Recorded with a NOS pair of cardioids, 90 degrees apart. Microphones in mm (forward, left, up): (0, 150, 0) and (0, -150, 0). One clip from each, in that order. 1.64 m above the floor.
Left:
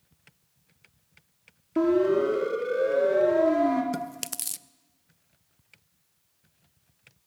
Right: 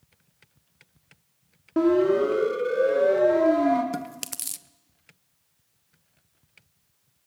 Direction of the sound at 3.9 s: 5° left.